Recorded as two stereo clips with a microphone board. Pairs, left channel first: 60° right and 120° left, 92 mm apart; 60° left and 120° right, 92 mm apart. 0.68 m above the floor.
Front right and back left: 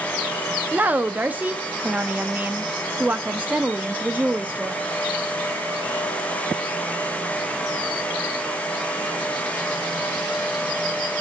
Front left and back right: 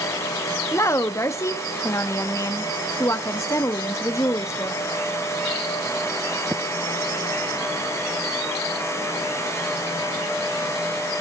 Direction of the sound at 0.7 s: 60° left.